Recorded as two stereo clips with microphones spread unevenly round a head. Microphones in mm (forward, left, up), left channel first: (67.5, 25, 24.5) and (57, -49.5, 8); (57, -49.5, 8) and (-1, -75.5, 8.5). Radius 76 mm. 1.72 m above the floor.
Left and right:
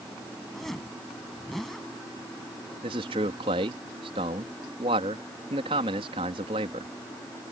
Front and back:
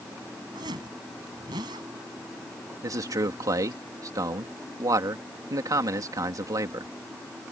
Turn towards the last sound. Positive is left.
turn(degrees=-130)